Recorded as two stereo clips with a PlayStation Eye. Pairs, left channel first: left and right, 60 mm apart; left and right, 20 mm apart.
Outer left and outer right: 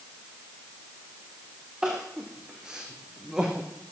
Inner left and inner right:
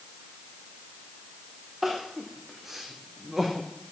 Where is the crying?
10° right (ahead or behind), 2 m.